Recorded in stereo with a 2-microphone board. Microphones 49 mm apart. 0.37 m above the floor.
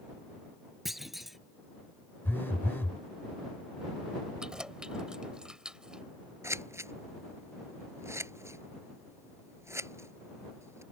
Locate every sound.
0.8 s a clunk: 5° right (ahead or behind)
2.2 s a phone buzzing: 45° left (ahead or behind)
4.4 s keys jangling: 15° right (ahead or behind)
6.4 s scissors: 70° right (ahead or behind)